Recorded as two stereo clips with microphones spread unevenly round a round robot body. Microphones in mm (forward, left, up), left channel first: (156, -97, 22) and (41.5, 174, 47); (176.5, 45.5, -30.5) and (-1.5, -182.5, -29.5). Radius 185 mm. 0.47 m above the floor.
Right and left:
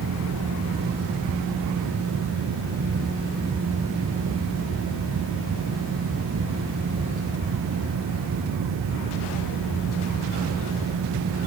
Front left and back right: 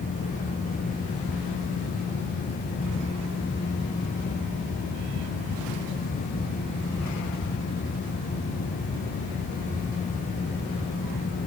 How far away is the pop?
I don't hear a pop.